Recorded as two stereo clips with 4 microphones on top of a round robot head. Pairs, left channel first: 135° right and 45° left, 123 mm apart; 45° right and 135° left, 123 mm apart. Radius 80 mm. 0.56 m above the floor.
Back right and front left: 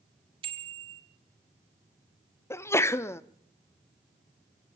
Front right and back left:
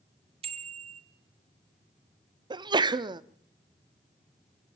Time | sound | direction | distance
0.4 | a bicycle bell | 95° left | 2 m
2.5 | a sneeze | 165° left | 0.9 m